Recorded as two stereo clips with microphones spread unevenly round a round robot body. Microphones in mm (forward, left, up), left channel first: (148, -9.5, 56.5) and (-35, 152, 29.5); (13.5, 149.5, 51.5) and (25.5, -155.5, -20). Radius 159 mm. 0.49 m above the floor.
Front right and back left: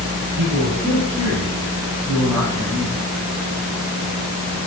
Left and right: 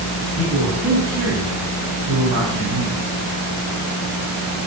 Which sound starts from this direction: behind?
A man speaking, at 0.4 s.